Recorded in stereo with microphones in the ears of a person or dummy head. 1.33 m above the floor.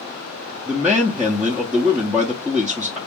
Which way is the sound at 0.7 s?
5° right (ahead or behind).